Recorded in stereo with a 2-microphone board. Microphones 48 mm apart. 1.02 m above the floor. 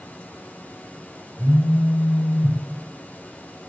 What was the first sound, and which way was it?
A phone buzzing, 15° left (ahead or behind).